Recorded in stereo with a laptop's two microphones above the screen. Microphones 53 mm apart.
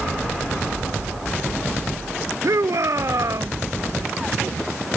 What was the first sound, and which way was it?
A shout, 75° right (ahead or behind).